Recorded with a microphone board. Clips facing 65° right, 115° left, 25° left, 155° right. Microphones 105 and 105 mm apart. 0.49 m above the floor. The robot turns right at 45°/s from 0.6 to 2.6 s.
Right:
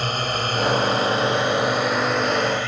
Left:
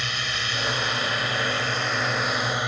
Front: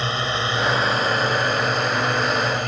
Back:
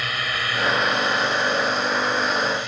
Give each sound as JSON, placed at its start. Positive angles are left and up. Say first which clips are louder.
{"t": 0.0, "sound": "a drone", "louder": "right 7 dB, front 4 dB", "azimuth_deg": -35}